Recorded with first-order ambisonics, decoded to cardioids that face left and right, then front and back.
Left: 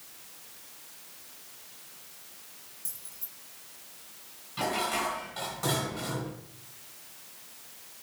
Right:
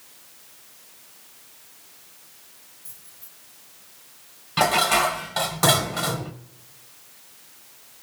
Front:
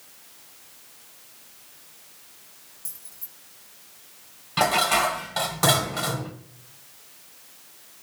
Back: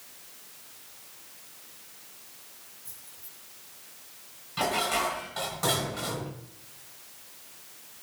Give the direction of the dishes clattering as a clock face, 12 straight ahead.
2 o'clock.